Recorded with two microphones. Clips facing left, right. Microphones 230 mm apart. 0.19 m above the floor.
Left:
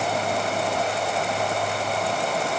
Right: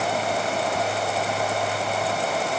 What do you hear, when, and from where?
Only background noise.